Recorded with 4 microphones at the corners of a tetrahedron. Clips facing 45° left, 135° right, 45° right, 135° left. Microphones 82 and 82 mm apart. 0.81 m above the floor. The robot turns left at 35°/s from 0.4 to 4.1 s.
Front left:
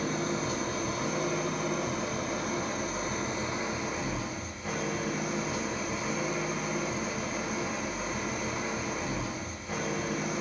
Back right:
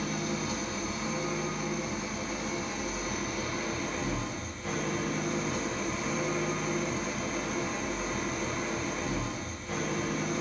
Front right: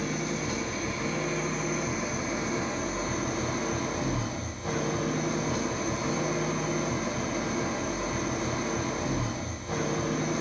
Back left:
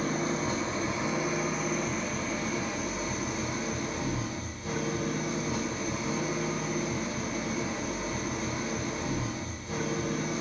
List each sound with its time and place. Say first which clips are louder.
0.0 s an engine running: front left 2 dB, back left 2 dB; 85° left, 0.8 m; by 10.4 s 45° right, 0.8 m